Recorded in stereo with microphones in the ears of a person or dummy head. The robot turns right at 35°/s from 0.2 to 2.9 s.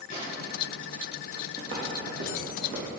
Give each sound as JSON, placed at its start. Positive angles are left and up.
{"t": 0.1, "sound": "a gunshot", "side_deg": 45, "distance_m": 3.0}
{"t": 1.6, "sound": "footsteps", "side_deg": -25, "distance_m": 2.0}